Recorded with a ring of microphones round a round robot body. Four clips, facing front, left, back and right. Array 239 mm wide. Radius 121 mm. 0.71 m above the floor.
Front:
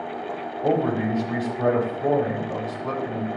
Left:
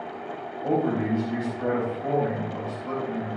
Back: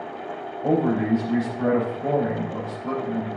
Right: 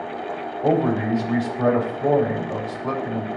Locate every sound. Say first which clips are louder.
0.6 s a man speaking: right 4 dB, back 1 dB; 70° right, 4.5 m